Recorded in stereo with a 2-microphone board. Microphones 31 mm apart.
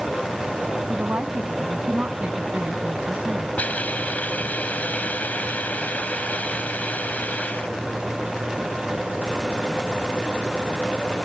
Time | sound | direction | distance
0.9 | a woman speaking | 60° right (ahead or behind) | ?
3.6 | a hiss | 60° left (ahead or behind) | ?